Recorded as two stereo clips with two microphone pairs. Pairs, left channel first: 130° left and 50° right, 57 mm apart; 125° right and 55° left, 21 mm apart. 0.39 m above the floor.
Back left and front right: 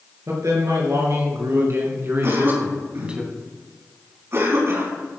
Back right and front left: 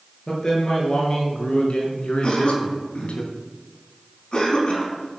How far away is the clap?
I don't hear a clap.